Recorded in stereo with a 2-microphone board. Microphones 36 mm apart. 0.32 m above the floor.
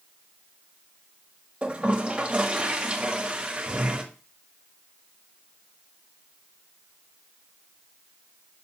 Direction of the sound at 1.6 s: 30° right (ahead or behind).